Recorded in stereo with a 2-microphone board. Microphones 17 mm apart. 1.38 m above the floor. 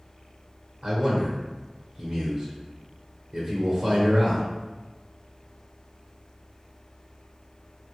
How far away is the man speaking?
About 0.7 m.